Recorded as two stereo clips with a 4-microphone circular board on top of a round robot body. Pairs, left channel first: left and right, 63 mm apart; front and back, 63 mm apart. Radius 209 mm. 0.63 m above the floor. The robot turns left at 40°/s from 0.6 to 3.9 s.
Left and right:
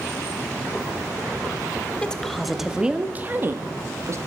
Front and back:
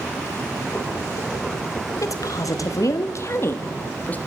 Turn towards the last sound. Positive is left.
turn(degrees=-60)